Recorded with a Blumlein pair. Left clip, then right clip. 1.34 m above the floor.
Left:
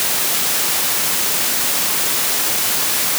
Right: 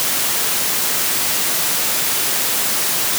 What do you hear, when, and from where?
Only background noise.